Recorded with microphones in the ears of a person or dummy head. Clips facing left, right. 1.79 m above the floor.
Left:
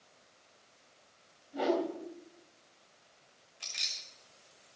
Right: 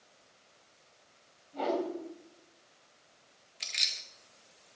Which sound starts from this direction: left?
A whoosh, at 1.5 s.